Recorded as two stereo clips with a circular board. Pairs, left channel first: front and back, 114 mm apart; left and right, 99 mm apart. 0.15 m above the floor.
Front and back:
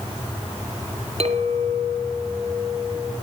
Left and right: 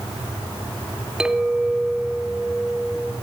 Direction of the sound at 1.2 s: 170° right.